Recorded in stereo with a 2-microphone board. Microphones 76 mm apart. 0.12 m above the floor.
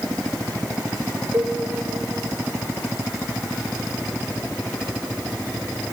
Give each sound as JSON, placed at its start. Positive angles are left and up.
{"t": 1.3, "sound": "a cowbell", "side_deg": -45, "distance_m": 2.5}